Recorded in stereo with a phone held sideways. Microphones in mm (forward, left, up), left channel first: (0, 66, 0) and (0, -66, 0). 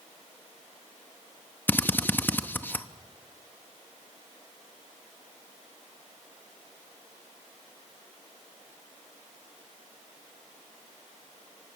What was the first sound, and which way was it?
A drill, 15° left (ahead or behind).